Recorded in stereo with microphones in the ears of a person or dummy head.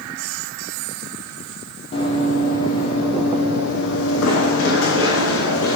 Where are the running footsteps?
35° left (ahead or behind), 4 m; by 5.8 s 75° left (ahead or behind), 7 m.